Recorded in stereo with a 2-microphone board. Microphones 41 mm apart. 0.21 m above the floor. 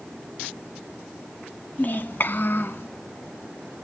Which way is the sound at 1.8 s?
45° left (ahead or behind).